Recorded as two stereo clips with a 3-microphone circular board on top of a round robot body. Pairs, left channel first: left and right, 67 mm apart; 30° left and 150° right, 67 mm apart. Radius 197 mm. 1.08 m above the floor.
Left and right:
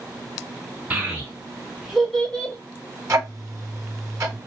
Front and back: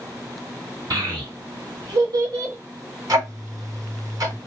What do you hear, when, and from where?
0.9 s a child speaking: 155° right, 1.7 m; by 2.5 s 155° left, 0.9 m
3.1 s ticking: 130° right, 1.4 m